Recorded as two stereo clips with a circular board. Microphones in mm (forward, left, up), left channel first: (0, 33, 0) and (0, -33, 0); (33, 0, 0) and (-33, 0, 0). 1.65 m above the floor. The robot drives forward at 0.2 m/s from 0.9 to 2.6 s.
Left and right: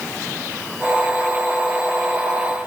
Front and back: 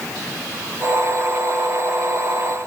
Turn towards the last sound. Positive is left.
No sound to turn to.